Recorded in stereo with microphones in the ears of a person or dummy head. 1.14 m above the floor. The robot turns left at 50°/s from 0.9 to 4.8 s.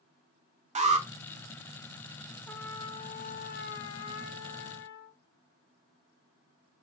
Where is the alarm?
30° right (ahead or behind), 1.0 m; by 1.1 s 20° right (ahead or behind), 1.0 m.